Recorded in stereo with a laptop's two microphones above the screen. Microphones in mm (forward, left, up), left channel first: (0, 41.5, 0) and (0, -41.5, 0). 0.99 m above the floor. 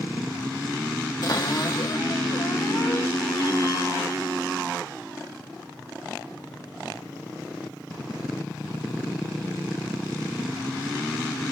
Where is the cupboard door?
50° left (ahead or behind), 0.9 m.